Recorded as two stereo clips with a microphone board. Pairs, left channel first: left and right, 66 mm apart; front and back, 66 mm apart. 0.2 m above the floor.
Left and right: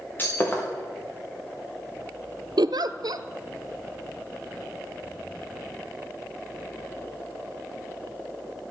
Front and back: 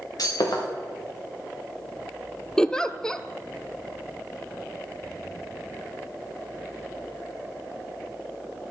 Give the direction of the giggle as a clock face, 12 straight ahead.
3 o'clock.